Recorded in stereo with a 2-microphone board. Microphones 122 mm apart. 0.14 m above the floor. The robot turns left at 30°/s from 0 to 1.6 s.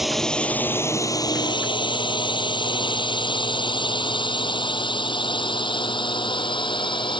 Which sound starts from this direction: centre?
A drone, at 0.0 s.